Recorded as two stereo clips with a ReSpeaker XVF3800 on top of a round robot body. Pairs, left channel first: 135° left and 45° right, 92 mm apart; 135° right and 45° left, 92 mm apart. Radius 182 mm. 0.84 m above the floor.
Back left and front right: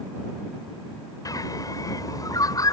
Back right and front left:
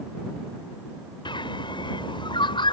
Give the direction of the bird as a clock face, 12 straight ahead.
6 o'clock.